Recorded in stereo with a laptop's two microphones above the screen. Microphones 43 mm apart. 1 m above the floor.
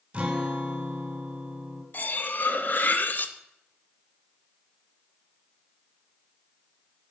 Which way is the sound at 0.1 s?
25° right (ahead or behind).